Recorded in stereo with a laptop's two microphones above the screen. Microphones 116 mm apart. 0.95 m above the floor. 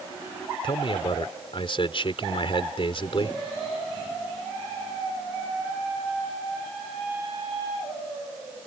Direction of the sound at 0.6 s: 50° left (ahead or behind).